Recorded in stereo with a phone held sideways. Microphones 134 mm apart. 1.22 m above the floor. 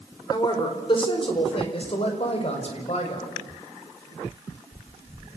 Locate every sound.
0.3 s a woman speaking: 30° left (ahead or behind), 4.5 m; by 3.3 s 55° left (ahead or behind), 7 m